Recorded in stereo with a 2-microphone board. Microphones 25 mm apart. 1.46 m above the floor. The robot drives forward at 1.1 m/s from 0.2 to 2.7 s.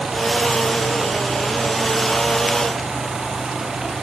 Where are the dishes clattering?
I don't hear dishes clattering.